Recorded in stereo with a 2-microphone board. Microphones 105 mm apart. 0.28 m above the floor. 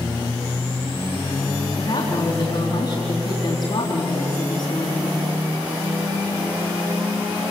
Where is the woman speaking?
50° left (ahead or behind), 3.5 m.